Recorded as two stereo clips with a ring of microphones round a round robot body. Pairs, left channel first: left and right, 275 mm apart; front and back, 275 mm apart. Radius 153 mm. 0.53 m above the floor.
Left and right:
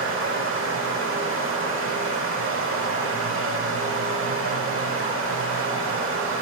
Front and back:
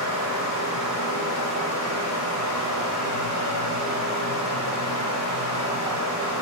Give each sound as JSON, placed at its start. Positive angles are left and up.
{"t": 0.0, "sound": "running water", "azimuth_deg": -45, "distance_m": 0.8}